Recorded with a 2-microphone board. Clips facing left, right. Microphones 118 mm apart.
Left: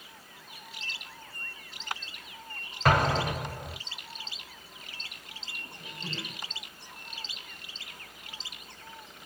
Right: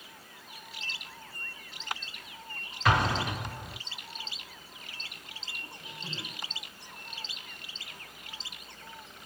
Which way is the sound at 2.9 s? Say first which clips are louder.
Left 2 dB; 45° left (ahead or behind).